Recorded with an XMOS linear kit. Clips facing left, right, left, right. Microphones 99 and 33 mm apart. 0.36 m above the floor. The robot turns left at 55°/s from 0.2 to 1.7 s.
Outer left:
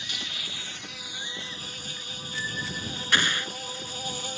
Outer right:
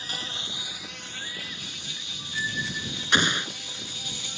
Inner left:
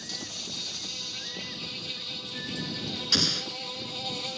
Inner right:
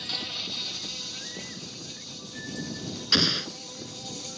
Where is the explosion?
20° right (ahead or behind).